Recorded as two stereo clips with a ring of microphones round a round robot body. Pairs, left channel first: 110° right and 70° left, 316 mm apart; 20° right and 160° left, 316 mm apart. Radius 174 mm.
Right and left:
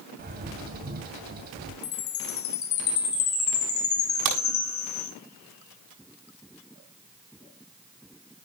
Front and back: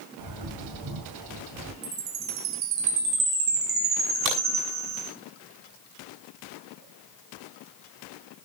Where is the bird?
130° left, 2.5 m.